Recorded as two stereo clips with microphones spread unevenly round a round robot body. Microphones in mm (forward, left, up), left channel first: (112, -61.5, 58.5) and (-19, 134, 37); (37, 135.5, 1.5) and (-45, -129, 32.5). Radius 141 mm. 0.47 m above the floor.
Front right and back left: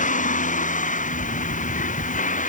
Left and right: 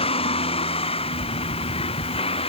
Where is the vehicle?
Straight ahead.